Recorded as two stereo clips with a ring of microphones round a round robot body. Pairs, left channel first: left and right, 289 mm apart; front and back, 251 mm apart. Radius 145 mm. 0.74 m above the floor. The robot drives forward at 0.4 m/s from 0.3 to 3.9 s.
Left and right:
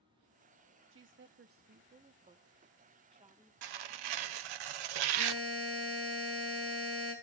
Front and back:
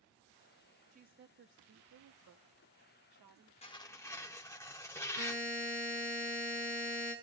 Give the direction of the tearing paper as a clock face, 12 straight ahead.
2 o'clock.